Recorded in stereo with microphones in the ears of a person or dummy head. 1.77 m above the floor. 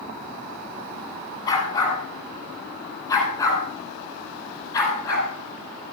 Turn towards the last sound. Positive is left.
turn(degrees=20)  # may be behind; listen again after turning